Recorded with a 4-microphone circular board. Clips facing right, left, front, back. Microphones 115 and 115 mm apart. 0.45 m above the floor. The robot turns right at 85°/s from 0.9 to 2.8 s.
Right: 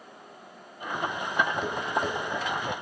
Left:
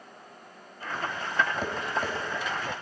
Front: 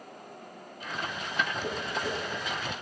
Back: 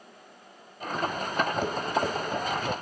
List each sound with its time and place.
1.6 s tapping: 140° left, 2.0 m; by 2.1 s 170° right, 2.0 m